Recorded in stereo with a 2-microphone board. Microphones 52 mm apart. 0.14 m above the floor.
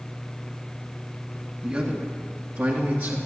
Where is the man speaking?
25° right (ahead or behind), 1.8 m; by 3.2 s 45° right (ahead or behind), 2.5 m.